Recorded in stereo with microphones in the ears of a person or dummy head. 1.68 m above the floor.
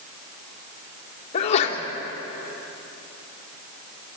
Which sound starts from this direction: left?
A sneeze, at 1.3 s.